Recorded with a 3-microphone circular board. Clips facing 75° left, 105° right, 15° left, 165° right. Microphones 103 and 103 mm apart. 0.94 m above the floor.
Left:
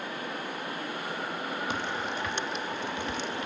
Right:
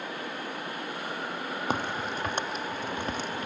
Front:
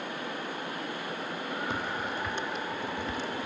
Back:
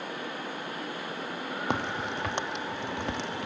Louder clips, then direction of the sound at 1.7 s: Right 2 dB, back 2 dB; 150° right.